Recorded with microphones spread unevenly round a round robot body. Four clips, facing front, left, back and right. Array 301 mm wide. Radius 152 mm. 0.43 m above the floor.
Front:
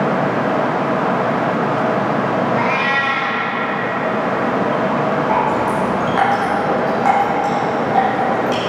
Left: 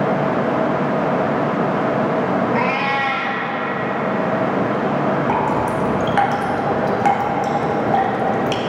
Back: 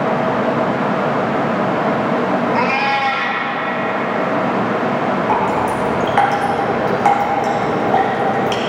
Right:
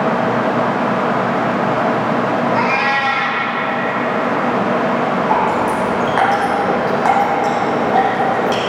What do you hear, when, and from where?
2.5 s a cat meowing: 170° right, 1.1 m
5.3 s dripping: 125° left, 1.0 m